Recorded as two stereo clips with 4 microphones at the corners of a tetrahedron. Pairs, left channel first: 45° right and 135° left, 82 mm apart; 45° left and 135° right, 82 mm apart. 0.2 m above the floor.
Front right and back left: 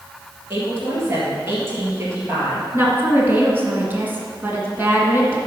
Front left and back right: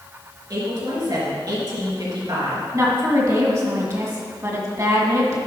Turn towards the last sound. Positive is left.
turn(degrees=-170)